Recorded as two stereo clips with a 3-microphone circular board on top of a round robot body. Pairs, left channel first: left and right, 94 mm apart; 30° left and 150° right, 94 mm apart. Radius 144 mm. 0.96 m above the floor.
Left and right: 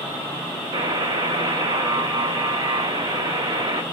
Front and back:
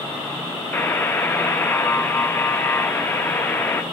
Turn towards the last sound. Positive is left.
turn(degrees=-40)